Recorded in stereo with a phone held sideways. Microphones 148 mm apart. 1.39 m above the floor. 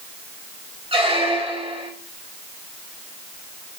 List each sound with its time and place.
0.9 s a squeak: 40° right (ahead or behind), 1.7 m